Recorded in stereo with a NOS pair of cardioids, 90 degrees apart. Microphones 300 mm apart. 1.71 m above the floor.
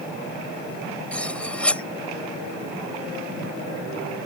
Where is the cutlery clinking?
5° left.